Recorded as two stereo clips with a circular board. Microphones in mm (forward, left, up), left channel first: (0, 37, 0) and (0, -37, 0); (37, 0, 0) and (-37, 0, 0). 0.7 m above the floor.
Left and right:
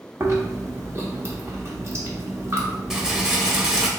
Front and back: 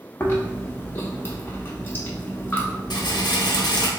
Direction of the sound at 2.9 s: 10° right.